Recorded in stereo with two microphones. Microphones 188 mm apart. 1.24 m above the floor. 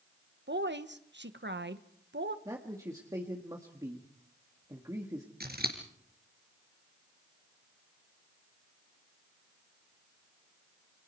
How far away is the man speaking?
About 1.7 m.